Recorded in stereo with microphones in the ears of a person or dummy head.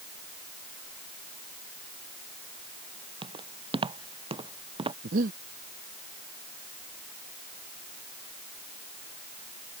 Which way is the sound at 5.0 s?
40° right (ahead or behind).